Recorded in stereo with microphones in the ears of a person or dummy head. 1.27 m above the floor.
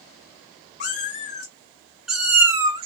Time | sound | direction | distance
0.8 | a cat meowing | 35° left (ahead or behind) | 1.0 m